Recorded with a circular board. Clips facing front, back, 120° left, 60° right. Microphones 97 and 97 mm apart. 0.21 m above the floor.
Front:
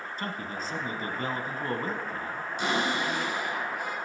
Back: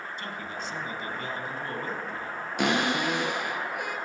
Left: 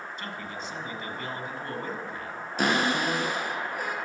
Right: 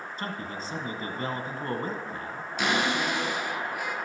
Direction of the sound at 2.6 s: 165° left.